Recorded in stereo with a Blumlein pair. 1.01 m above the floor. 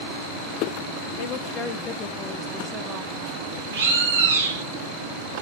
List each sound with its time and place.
1.2 s a woman speaking: 45° left, 1.0 m; by 3.6 s 40° right, 1.2 m
3.7 s a bird: 60° right, 1.4 m